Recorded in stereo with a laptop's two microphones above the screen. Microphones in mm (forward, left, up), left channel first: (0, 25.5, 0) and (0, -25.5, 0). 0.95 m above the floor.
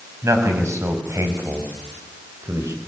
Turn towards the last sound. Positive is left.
turn(degrees=-85)